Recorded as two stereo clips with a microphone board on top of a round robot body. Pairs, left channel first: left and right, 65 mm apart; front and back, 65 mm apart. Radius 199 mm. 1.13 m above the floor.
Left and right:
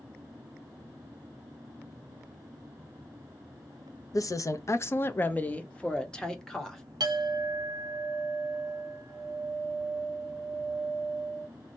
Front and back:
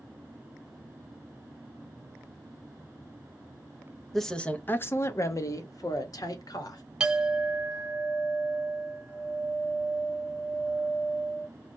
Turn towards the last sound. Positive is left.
turn(degrees=-100)